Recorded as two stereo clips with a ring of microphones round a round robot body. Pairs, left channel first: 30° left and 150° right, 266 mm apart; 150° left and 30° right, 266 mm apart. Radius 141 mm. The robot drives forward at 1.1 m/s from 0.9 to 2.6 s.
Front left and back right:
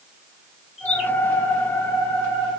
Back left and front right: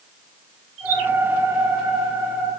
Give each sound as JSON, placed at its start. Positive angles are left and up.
{"t": 0.8, "sound": "a bird", "azimuth_deg": -35, "distance_m": 4.5}